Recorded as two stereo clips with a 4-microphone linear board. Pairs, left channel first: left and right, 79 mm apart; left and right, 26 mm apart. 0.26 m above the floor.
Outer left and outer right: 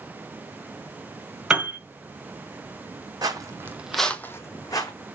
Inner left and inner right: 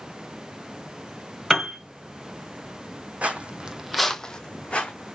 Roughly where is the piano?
Centre.